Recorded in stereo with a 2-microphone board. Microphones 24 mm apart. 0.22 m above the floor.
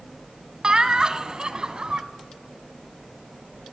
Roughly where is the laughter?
Right.